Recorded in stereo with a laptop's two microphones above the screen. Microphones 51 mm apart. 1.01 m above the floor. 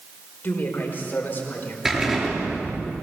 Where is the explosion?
10° right (ahead or behind), 6.5 m.